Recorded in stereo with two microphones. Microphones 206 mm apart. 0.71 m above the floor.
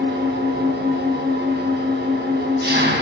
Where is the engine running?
55° right (ahead or behind), 3.5 m.